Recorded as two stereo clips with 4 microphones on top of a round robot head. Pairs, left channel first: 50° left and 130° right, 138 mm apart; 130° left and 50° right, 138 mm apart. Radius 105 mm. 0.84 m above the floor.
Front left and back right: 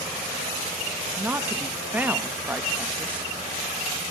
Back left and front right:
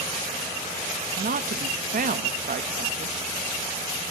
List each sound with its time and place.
1.2 s a woman speaking: 55° right, 0.9 m